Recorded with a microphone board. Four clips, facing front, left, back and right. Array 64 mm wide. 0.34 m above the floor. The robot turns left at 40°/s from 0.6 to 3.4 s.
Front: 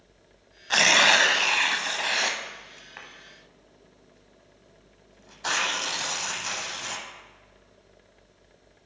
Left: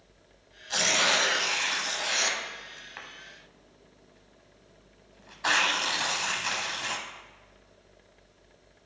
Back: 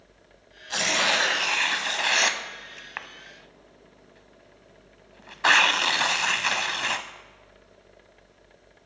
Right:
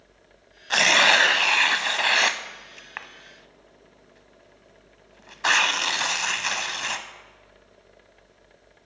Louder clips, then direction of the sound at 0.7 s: Right 8 dB, front 5 dB; 50° right.